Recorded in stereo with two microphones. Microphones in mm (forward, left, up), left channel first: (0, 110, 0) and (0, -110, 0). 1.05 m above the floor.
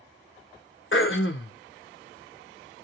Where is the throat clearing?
60° left (ahead or behind), 0.6 m.